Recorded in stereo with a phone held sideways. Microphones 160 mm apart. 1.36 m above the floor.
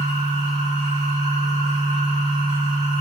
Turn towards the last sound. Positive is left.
turn(degrees=-45)  # may be behind; listen again after turning